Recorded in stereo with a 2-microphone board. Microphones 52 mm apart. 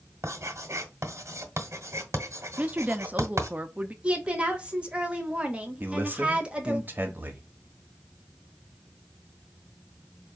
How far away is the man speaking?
About 1.1 m.